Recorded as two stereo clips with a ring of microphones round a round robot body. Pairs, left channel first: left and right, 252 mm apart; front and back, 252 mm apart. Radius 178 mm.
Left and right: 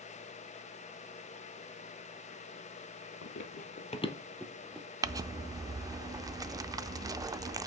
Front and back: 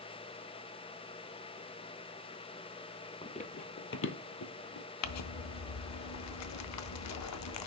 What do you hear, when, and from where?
3.2 s running footsteps: 65° left, 0.8 m; by 4.9 s 5° right, 1.1 m
5.0 s crumpling: 10° right, 0.5 m